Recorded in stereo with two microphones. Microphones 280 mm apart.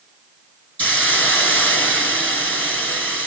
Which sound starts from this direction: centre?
A hiss, at 0.8 s.